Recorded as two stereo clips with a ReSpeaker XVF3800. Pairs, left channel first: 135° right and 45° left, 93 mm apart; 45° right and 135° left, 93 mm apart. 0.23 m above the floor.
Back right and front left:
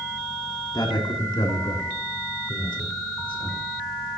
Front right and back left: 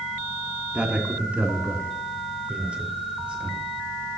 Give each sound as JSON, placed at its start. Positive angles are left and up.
{"t": 0.7, "sound": "a man speaking", "azimuth_deg": -150, "distance_m": 2.5}